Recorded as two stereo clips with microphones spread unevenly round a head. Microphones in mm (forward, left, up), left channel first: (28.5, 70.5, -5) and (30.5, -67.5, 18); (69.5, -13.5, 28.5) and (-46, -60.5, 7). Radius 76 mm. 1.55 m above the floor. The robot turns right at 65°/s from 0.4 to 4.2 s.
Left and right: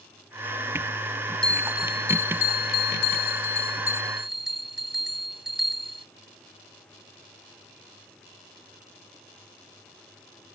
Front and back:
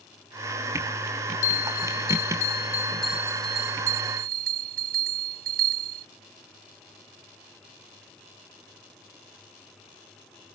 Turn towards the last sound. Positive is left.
turn(degrees=-175)